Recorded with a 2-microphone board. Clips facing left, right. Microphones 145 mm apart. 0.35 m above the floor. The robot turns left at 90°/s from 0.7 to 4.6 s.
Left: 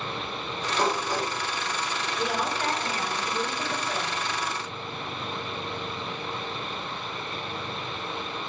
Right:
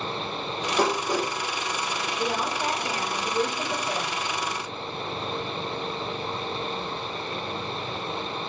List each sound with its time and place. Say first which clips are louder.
0.8 s dishes clattering: right 2 dB; 40° right (ahead or behind), 4 m; by 1.3 s 80° right, 4 m
2.2 s a woman speaking: even; 20° left, 1.3 m; by 4.1 s 155° right, 1.3 m